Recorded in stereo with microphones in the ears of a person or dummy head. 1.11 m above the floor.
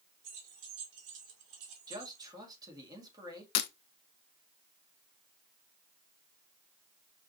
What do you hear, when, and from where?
0.2 s keys jangling: 65° right (ahead or behind), 2 m
1.9 s a man speaking: 20° right (ahead or behind), 1.9 m
3.5 s breaking glass: 55° left (ahead or behind), 0.6 m